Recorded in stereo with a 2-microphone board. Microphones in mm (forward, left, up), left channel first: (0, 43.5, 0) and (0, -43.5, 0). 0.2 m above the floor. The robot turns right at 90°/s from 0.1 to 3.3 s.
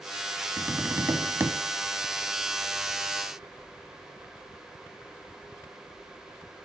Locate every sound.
0.6 s tapping: 140° right, 0.7 m; by 1.5 s 50° right, 0.7 m